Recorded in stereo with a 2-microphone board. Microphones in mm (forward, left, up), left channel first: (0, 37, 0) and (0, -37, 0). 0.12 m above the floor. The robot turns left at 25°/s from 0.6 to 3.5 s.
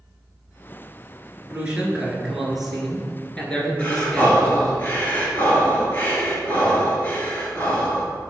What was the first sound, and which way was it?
A man speaking, 150° right.